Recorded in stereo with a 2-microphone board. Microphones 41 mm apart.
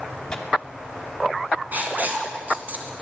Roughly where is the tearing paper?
Centre.